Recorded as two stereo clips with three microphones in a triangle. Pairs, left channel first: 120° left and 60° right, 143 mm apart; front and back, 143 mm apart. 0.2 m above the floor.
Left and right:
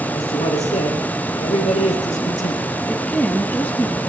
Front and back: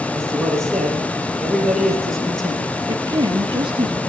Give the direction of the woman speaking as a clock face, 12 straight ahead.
6 o'clock.